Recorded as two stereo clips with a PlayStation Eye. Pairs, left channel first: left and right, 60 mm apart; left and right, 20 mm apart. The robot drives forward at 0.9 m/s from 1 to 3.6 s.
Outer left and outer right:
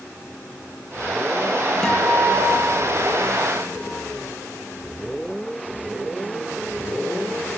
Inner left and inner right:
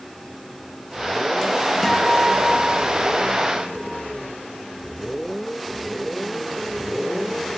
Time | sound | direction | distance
1.8 | a guitar | 10° left (ahead or behind) | 9 m